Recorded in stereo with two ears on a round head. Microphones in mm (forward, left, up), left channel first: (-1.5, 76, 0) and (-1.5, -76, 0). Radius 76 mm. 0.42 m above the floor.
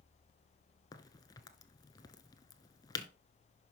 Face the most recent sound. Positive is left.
turn(degrees=25)  # may be behind; listen again after turning